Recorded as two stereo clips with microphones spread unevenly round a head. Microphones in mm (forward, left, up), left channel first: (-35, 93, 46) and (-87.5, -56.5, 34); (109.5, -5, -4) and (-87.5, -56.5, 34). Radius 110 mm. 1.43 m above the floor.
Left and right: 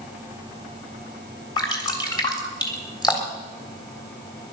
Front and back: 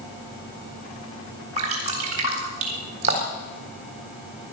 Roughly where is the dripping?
Behind left.